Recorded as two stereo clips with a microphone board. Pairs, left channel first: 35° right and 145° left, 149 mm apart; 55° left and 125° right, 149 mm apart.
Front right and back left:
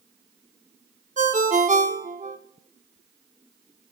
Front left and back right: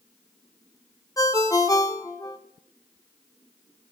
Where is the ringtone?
120° left, 0.5 m.